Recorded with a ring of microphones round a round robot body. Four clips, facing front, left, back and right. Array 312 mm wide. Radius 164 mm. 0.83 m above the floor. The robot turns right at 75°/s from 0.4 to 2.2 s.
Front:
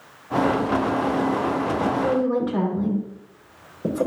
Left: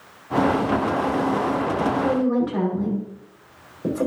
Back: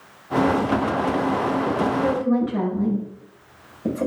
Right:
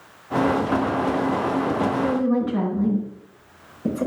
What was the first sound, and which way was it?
A woman speaking, 20° left.